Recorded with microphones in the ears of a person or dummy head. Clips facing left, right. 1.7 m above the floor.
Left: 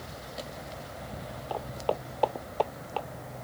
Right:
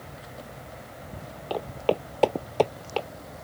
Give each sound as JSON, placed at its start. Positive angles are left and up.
{"t": 1.5, "sound": "footsteps", "side_deg": -30}